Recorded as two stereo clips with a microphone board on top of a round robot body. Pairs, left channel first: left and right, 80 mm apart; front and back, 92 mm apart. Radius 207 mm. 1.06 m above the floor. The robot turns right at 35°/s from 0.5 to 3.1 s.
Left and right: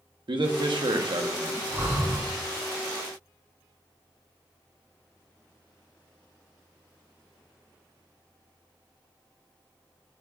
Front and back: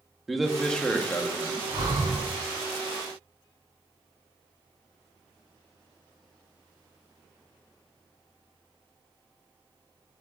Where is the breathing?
140° right, 3 m; by 2.2 s 120° right, 3 m.